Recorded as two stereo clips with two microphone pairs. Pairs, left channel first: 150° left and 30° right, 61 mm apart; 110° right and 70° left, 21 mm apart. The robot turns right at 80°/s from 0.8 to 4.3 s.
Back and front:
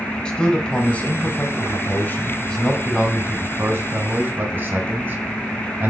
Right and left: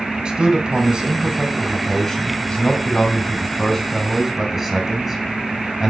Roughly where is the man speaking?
Left.